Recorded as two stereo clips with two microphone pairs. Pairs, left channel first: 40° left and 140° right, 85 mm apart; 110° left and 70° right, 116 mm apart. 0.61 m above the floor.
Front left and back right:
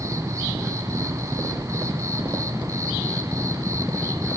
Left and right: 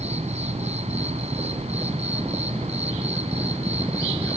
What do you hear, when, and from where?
0.0 s an insect: 90° right, 3 m